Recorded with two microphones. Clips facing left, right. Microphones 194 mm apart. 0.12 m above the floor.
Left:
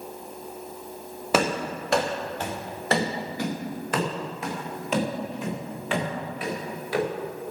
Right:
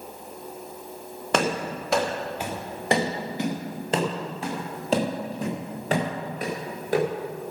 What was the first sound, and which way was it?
Running footsteps, 5° left (ahead or behind).